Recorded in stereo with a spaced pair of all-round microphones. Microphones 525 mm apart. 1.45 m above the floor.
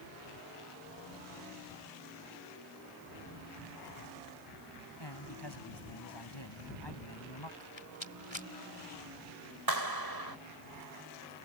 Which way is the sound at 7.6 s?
60° left (ahead or behind).